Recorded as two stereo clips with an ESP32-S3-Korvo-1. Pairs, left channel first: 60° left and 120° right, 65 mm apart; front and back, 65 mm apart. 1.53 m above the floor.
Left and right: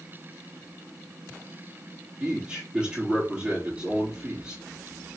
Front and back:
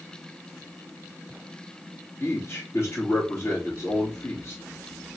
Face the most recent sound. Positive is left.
turn(degrees=-50)